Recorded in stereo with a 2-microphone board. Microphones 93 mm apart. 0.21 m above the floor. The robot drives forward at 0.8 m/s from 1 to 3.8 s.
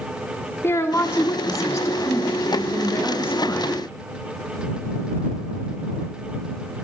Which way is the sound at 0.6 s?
30° left (ahead or behind).